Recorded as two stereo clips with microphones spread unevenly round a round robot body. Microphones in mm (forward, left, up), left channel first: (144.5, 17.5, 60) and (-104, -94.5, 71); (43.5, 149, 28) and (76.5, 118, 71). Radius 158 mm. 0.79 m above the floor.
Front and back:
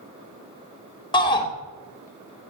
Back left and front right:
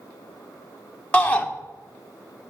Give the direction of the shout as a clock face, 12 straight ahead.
9 o'clock.